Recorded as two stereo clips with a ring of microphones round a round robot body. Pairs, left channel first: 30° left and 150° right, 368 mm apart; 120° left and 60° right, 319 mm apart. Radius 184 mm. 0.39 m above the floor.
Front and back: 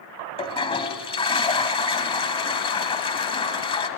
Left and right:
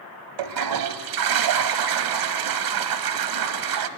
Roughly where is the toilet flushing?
Ahead right.